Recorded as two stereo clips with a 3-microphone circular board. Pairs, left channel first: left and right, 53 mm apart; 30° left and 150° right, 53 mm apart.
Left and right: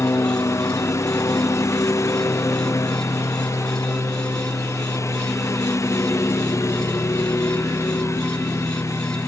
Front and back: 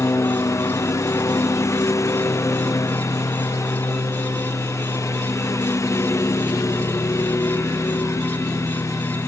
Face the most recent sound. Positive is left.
turn(degrees=60)